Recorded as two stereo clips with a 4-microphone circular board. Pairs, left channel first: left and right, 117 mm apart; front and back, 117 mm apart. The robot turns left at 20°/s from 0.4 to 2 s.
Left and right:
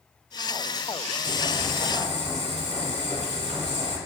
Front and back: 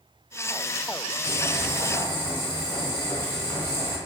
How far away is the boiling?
About 1.3 m.